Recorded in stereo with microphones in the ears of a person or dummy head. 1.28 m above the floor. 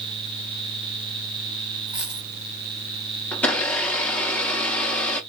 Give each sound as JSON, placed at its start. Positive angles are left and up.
{"t": 1.9, "sound": "a dropped coin", "side_deg": -10, "distance_m": 1.2}
{"t": 3.3, "sound": "a blender", "side_deg": 5, "distance_m": 0.7}